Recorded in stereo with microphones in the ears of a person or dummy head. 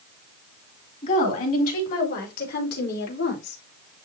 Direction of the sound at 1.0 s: 45° left (ahead or behind).